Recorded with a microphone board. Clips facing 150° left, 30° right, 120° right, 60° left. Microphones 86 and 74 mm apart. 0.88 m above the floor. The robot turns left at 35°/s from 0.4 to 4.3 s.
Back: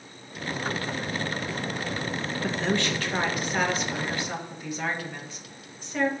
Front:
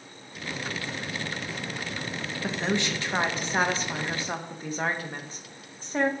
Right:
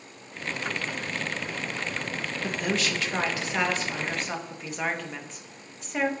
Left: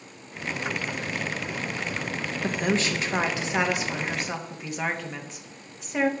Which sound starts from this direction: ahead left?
A woman speaking, at 2.4 s.